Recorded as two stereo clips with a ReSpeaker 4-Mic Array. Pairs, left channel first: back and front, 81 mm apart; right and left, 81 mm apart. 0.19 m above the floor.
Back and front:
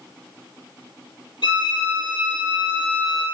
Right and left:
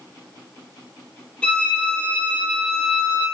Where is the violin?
165° right, 3 m.